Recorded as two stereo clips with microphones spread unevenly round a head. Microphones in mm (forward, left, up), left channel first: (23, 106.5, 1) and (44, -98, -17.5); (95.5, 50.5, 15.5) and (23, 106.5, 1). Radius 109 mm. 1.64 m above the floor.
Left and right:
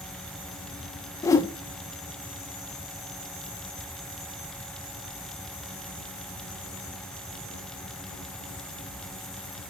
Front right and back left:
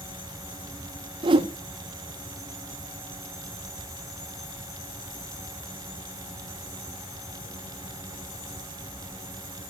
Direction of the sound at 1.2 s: 160° left.